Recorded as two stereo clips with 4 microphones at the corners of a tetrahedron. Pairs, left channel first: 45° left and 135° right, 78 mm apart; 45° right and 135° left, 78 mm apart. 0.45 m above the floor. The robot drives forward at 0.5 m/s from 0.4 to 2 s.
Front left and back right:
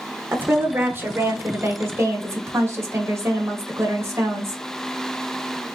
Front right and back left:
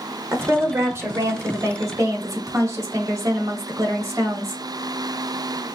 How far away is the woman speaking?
About 1.2 m.